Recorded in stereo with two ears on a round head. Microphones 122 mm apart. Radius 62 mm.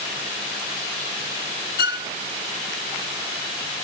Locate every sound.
1.8 s a violin: 70° left (ahead or behind), 0.6 m